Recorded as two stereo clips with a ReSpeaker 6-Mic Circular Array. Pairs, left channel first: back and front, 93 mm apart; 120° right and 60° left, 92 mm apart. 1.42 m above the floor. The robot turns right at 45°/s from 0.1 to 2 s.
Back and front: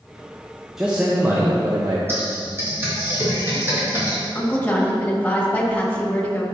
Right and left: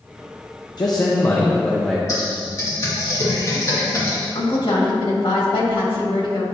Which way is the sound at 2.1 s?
65° right.